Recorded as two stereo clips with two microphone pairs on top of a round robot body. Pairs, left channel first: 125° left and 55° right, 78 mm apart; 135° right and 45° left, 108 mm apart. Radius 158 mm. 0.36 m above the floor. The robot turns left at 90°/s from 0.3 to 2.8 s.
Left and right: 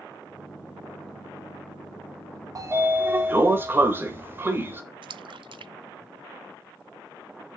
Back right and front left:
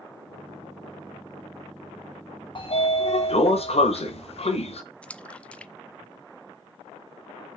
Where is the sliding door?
100° right, 1.3 m; by 4.8 s 120° right, 1.3 m.